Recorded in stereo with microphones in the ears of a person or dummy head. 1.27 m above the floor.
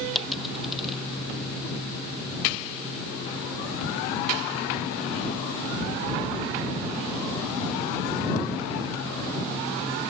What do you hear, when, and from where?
0.1 s a dropped coin: centre (ahead or behind)